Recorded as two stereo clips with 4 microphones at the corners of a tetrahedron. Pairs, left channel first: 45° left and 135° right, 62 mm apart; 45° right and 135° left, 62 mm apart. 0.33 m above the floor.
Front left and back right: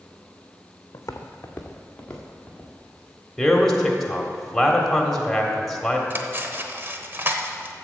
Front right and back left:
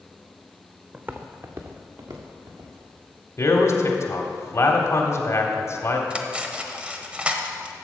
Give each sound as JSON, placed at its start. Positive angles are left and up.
{"t": 0.9, "sound": "footsteps", "azimuth_deg": 65, "distance_m": 1.1}
{"t": 3.4, "sound": "a man speaking", "azimuth_deg": -40, "distance_m": 1.5}
{"t": 6.1, "sound": "cutlery clinking", "azimuth_deg": -165, "distance_m": 0.8}